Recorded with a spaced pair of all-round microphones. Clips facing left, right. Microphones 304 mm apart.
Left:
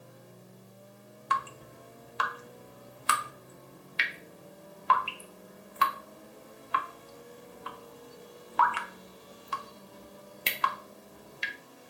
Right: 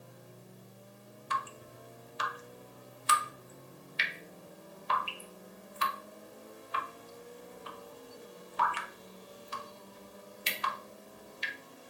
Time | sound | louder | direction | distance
1.3 | dripping | left 4 dB | 65° left (ahead or behind) | 0.5 m